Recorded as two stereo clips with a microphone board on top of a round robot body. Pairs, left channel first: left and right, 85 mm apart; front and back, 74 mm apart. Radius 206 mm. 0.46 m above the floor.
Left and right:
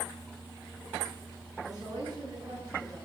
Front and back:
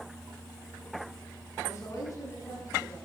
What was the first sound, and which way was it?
A woman speaking, 50° right.